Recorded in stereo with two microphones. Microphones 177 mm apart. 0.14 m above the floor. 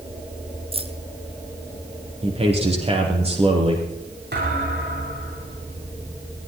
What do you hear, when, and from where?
0.7 s keys jangling: 35° right (ahead or behind), 1.3 m
2.2 s a man speaking: 35° right (ahead or behind), 5 m
4.3 s a thud: 80° right, 8.5 m